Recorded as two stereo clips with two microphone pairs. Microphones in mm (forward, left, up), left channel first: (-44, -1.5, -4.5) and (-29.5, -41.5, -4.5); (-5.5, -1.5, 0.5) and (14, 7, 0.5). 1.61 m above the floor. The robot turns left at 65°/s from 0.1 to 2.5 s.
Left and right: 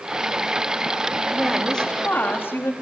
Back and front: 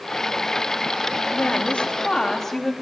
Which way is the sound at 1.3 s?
145° right.